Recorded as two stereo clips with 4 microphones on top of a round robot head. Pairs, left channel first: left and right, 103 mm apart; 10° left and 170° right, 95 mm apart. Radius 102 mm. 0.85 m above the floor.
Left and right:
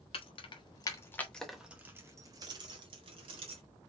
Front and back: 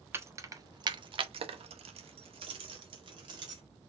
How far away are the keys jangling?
About 1.2 m.